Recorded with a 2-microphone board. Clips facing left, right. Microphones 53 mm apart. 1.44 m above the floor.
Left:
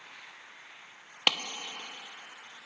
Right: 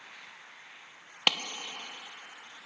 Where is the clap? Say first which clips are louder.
Even; centre (ahead or behind), 0.8 m.